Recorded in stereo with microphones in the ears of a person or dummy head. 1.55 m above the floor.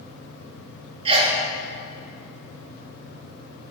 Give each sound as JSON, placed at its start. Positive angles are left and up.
{"t": 1.1, "sound": "a sneeze", "side_deg": -30, "distance_m": 1.9}